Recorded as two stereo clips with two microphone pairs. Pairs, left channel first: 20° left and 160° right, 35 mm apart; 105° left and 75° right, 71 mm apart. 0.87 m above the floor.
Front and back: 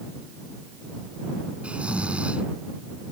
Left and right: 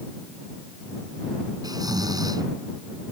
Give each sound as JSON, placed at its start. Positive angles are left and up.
{"t": 1.6, "sound": "snoring", "azimuth_deg": -100}